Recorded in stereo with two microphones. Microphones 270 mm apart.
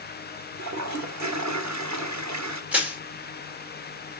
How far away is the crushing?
About 3 m.